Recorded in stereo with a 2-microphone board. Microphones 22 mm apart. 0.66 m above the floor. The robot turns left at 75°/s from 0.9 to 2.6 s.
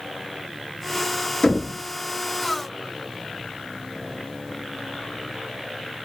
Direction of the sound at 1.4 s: 55° left (ahead or behind).